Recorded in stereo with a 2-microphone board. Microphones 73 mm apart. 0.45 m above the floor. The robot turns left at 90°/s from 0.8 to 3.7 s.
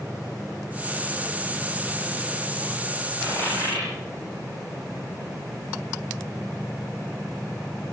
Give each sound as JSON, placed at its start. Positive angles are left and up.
{"t": 3.2, "sound": "a dropped coin", "side_deg": 50, "distance_m": 9.0}